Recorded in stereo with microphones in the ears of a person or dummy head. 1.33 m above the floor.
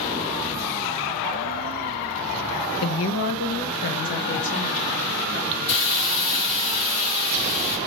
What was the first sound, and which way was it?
A woman speaking, 85° left.